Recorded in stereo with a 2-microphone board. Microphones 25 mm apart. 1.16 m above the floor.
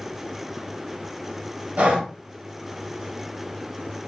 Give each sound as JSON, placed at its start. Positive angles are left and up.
{"t": 1.8, "sound": "breathing", "side_deg": -75, "distance_m": 1.0}